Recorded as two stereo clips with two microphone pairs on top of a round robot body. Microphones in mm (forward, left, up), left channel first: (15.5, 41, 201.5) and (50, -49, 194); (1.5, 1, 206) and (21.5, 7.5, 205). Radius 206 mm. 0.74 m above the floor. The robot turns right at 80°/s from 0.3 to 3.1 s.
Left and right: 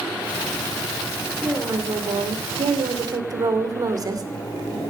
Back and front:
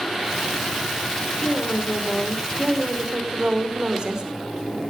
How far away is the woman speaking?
About 2.5 m.